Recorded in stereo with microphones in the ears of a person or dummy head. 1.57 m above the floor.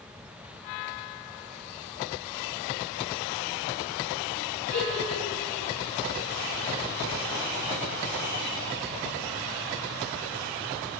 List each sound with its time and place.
4.7 s a giggle: 75° left (ahead or behind), 1.9 m